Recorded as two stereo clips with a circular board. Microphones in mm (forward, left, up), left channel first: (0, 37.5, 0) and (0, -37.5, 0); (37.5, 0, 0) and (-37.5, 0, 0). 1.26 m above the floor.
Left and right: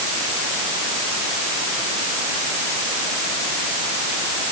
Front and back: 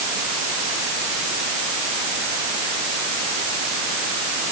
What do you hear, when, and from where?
Only background noise.